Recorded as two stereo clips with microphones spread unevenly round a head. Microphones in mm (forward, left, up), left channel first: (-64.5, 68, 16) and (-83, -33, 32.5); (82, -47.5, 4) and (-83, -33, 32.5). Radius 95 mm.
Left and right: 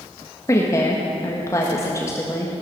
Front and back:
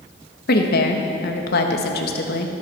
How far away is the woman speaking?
About 1.5 m.